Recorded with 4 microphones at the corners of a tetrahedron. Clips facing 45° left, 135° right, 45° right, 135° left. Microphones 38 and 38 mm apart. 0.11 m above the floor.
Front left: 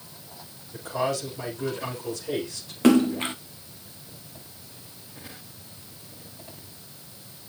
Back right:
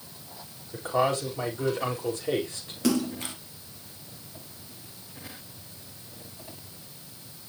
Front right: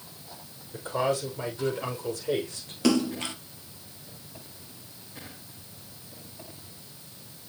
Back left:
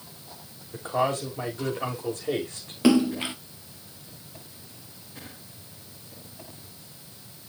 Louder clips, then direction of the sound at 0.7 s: Back right 2 dB, back left 2 dB; straight behind.